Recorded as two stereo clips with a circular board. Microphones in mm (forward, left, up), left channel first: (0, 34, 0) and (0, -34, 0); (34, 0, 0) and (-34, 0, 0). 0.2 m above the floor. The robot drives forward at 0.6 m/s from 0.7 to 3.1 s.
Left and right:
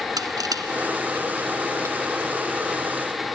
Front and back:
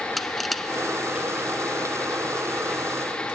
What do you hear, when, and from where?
0.2 s crushing: 90° right, 0.8 m; by 2.1 s 140° right, 1.2 m